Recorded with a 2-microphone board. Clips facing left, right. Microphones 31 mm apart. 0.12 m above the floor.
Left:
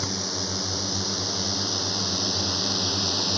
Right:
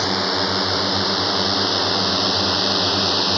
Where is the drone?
55° right (ahead or behind); by 3.4 s 40° right (ahead or behind).